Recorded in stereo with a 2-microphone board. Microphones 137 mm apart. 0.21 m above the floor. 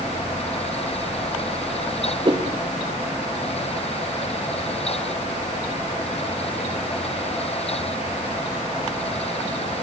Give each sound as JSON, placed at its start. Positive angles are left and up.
{"t": 2.2, "sound": "a whoosh", "side_deg": -35, "distance_m": 4.0}